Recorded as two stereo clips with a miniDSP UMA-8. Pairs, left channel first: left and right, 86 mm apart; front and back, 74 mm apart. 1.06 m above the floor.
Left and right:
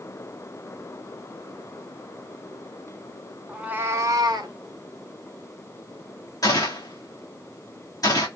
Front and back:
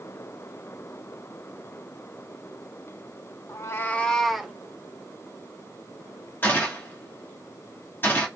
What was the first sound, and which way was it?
A cat meowing, 10° right.